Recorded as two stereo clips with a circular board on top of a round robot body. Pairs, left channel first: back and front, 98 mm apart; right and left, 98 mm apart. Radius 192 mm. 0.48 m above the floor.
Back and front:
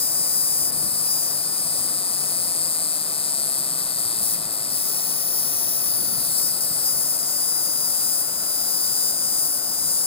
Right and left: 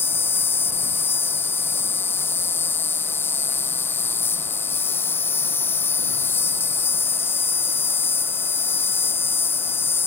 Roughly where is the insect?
Behind right.